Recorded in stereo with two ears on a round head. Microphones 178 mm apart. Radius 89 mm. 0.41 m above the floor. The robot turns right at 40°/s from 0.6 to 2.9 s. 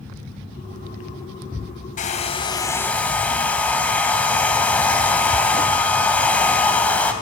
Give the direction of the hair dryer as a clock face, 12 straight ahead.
8 o'clock.